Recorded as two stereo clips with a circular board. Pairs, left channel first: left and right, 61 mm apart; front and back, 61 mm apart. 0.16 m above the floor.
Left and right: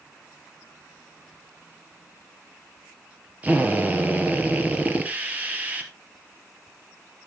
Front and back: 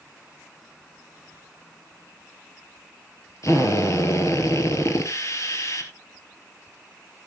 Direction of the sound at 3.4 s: 30° right.